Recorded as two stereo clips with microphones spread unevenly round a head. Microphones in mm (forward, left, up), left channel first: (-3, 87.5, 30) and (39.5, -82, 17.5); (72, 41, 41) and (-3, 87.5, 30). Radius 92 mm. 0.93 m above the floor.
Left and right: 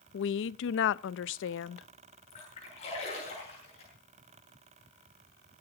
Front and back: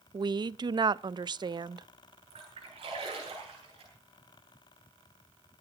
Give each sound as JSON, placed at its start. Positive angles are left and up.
{"t": 0.1, "sound": "a woman speaking", "azimuth_deg": 115, "distance_m": 0.6}
{"t": 2.3, "sound": "a splash", "azimuth_deg": 160, "distance_m": 8.0}